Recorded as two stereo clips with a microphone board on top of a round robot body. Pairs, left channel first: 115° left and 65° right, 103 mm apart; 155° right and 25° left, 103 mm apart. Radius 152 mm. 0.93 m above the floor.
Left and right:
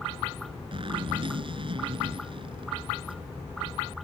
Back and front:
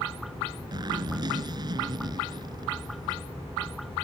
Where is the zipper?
30° right.